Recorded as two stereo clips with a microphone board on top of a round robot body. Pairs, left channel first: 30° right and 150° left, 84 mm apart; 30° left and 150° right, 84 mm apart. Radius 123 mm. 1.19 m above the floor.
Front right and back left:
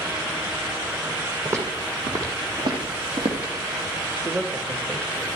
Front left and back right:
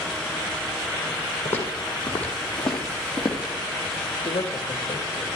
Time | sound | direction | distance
1.4 | footsteps | 95° left | 3.5 m
4.2 | a man speaking | 85° left | 1.7 m